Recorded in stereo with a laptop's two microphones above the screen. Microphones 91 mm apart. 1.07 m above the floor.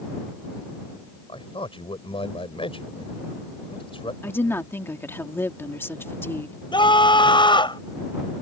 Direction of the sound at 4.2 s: 25° left (ahead or behind).